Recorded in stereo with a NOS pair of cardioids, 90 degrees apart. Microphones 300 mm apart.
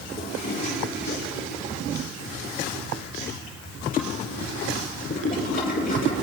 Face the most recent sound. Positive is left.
turn(degrees=30)